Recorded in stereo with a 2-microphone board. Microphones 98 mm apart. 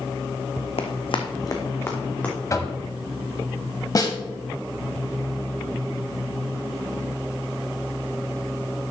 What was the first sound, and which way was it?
Running footsteps, 80° left.